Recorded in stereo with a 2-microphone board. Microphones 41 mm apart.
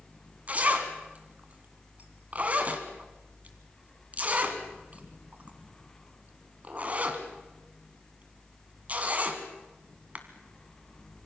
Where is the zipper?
35° right (ahead or behind), 2 m.